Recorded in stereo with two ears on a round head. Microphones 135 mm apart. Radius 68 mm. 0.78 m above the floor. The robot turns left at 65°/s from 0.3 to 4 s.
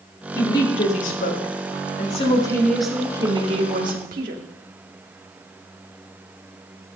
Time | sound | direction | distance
0.3 | a woman speaking | 160° left | 2 m